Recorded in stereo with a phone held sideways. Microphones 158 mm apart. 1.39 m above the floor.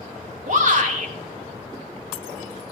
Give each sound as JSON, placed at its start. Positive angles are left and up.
{"t": 0.5, "sound": "a shout", "side_deg": -60, "distance_m": 3.0}